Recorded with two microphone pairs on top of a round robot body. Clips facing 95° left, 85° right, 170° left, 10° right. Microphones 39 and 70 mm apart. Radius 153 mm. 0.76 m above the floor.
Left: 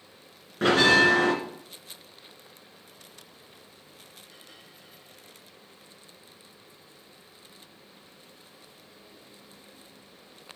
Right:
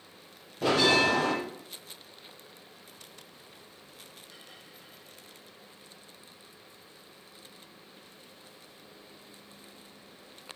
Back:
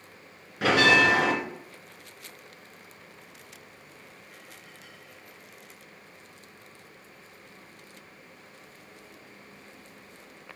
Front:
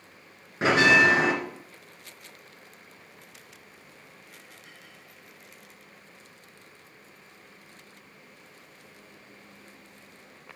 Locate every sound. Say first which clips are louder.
0.6 s a bell: left 4 dB, front 1 dB; 60° left, 2.5 m